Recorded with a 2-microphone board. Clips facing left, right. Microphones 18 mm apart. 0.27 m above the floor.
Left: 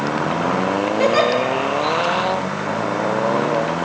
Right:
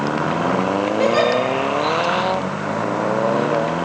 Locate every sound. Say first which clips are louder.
1.0 s a giggle: left 1 dB; 15° left (ahead or behind), 1.0 m